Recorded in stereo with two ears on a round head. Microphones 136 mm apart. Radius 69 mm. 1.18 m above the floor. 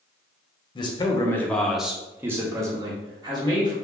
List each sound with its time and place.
0.8 s a man speaking: 30° left (ahead or behind), 0.6 m; by 3.7 s 30° right (ahead or behind), 1.4 m